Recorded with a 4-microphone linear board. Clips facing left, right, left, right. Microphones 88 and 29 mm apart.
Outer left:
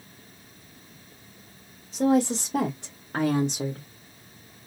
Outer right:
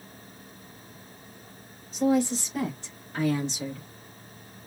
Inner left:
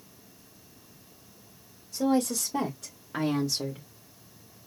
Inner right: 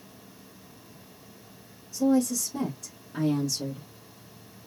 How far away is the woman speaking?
About 1.7 m.